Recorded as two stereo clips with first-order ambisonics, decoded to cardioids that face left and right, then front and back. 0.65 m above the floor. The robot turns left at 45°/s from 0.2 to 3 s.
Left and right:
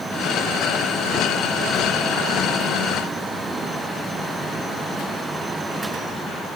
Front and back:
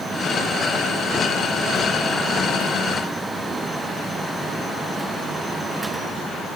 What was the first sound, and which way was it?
Only background noise.